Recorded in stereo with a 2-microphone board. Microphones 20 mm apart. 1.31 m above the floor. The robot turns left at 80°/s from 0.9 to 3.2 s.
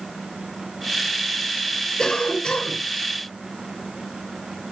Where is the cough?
145° left, 4.5 m; by 2.8 s 80° left, 4.5 m.